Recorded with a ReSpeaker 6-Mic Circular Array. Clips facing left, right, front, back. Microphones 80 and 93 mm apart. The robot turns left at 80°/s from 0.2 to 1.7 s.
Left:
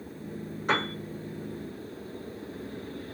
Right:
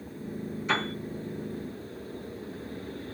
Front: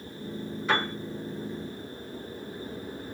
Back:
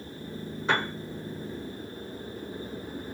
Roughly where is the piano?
Behind left.